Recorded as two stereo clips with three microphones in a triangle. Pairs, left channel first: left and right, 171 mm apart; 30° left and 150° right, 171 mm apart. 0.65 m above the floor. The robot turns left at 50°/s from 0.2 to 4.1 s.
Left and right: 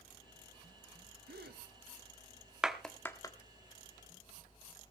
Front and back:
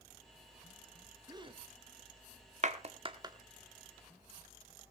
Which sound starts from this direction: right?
A gasp, at 1.3 s.